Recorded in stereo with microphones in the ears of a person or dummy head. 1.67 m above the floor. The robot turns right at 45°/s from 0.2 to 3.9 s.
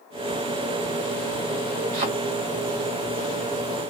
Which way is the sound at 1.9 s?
55° right (ahead or behind).